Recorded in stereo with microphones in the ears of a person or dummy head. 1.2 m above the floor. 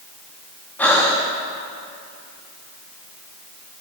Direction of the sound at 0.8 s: 10° left (ahead or behind).